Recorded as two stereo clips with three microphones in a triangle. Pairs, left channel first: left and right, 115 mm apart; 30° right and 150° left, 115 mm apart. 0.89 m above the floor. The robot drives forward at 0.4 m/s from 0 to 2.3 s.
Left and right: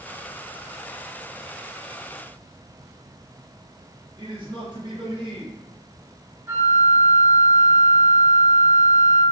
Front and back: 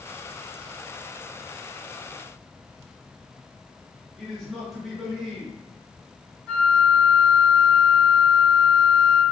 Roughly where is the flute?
Right.